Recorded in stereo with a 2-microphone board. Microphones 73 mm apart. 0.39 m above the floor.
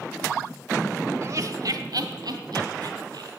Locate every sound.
1.2 s laughter: 40° right (ahead or behind), 1.1 m; by 3.3 s 75° right (ahead or behind), 3.5 m